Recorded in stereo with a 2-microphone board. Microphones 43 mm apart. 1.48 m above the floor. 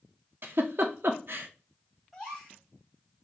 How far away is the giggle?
About 0.6 m.